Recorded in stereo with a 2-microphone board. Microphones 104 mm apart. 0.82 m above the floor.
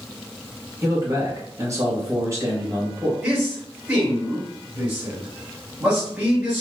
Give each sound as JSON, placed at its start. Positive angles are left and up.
{"t": 0.8, "sound": "a man speaking", "side_deg": -30, "distance_m": 1.2}
{"t": 3.2, "sound": "a man speaking", "side_deg": -15, "distance_m": 1.9}